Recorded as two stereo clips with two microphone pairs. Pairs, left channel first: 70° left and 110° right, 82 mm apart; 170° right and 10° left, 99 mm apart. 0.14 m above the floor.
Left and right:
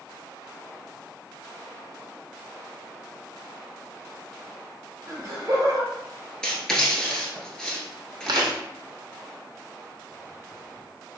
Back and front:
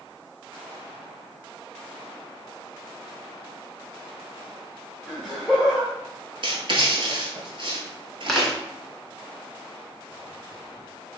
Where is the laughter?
75° right, 1.5 m.